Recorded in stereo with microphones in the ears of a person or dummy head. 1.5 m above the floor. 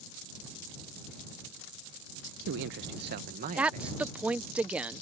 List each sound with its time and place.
2.2 s a man speaking: 75° right (ahead or behind); by 4.2 s 35° right (ahead or behind)
3.6 s a woman speaking: 10° right (ahead or behind)